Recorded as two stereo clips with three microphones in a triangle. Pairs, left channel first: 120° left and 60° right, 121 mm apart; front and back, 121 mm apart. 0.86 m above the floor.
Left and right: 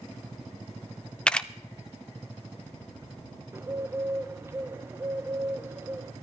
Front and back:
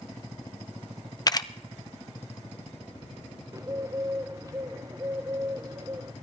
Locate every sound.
1.3 s a camera shutter: 40° left, 0.5 m
3.5 s a bird: 125° right, 0.7 m